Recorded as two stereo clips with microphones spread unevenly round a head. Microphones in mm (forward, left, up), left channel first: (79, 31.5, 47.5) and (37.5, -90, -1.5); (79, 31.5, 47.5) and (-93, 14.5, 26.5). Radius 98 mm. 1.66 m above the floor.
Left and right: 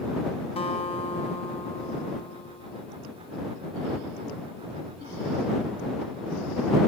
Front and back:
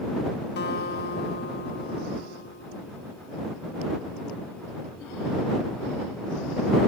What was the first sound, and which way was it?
A guitar, 30° left.